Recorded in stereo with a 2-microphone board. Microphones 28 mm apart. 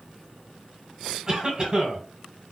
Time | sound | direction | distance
1.3 | a cough | 25° right (ahead or behind) | 1.4 m